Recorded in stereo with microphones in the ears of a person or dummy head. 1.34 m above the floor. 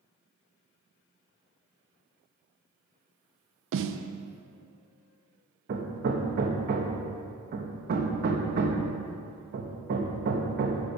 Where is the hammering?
50° right (ahead or behind), 1.1 m.